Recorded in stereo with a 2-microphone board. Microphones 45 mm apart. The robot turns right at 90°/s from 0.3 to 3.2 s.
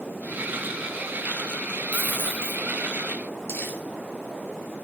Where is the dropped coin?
30° left, 2.5 m; by 2.6 s 90° left, 2.5 m.